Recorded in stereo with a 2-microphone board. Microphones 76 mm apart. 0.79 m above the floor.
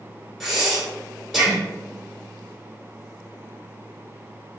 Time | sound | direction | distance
0.4 | breathing | 5° right (ahead or behind) | 1.8 m